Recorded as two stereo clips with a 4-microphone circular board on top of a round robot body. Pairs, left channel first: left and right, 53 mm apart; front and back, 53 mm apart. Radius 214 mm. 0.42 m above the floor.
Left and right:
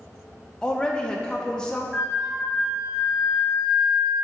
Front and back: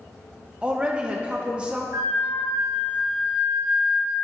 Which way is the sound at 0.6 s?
140° left.